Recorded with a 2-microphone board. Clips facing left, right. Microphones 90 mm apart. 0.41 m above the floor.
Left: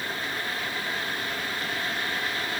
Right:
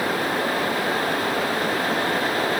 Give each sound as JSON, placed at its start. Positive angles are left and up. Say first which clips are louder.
{"t": 0.0, "sound": "running water", "louder": "right 10 dB", "side_deg": -90}